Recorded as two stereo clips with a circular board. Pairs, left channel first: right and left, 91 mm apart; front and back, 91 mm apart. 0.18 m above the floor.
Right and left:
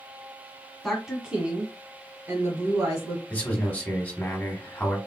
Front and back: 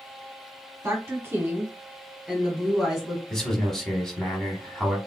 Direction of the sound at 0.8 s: Straight behind.